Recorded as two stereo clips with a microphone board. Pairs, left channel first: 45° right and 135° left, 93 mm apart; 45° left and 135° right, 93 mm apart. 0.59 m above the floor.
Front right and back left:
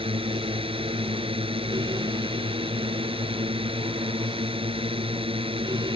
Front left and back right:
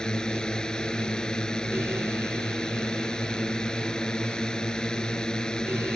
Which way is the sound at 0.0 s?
125° left.